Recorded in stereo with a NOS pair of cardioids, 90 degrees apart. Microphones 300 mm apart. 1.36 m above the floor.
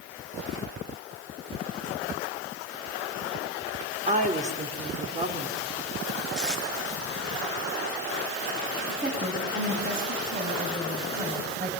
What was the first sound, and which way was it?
A woman speaking, 25° right.